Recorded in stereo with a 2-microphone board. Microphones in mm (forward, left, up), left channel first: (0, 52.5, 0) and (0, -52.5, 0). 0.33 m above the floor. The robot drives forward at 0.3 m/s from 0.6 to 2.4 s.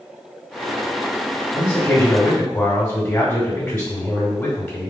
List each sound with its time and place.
1.5 s a man speaking: 10° left (ahead or behind), 1.3 m